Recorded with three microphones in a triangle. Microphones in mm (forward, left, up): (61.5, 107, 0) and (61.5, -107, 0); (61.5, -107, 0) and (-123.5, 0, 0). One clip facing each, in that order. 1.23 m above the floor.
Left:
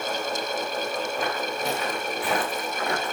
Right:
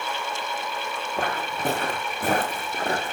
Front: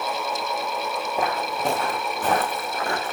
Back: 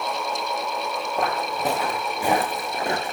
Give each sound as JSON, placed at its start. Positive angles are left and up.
{"t": 1.2, "sound": "footsteps", "azimuth_deg": -115, "distance_m": 4.0}